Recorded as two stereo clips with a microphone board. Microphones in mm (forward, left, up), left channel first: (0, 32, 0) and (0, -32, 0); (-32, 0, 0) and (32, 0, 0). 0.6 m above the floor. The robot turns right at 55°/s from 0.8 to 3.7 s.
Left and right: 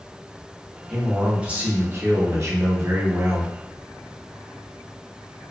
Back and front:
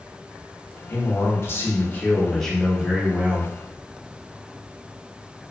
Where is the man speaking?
175° left, 0.7 m; by 3.5 s 40° right, 0.7 m.